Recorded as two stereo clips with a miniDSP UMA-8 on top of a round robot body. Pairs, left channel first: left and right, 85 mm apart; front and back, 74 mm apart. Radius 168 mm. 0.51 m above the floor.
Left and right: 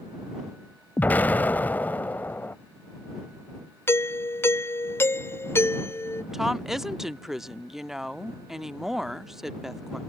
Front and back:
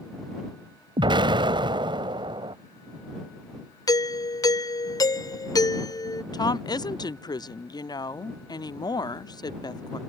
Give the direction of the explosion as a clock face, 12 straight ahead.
7 o'clock.